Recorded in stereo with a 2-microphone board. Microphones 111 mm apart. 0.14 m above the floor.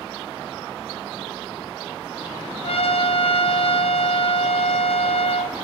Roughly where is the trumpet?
Left.